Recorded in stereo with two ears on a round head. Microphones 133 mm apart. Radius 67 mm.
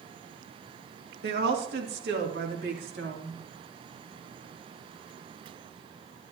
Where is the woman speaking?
80° right, 2 m; by 3.4 s 85° right, 3.5 m.